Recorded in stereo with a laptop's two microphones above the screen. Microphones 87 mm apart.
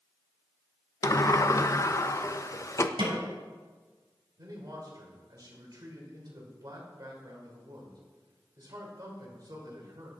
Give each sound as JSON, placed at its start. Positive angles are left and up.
{"t": 1.0, "sound": "a sliding door", "side_deg": 40, "distance_m": 0.5}
{"t": 3.0, "sound": "a snare drum", "side_deg": -65, "distance_m": 3.5}
{"t": 4.4, "sound": "a man speaking", "side_deg": -50, "distance_m": 3.5}